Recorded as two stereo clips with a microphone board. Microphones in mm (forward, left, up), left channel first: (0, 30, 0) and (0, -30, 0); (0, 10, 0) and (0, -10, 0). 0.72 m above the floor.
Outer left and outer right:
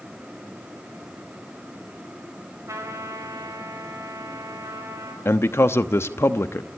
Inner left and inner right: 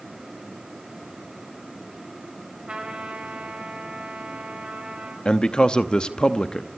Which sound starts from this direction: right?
A trumpet, at 2.7 s.